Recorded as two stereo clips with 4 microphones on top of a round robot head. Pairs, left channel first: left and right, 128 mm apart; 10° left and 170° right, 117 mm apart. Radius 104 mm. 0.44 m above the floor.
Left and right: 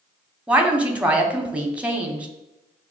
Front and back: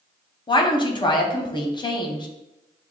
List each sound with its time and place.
0.5 s a woman speaking: 15° right, 1.0 m